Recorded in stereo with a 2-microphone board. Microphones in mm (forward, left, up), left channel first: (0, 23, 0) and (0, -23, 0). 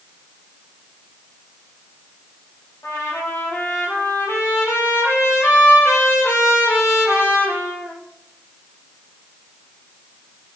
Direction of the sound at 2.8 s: 75° left (ahead or behind).